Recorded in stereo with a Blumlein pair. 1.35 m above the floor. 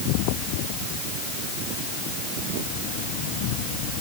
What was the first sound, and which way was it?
Only background noise.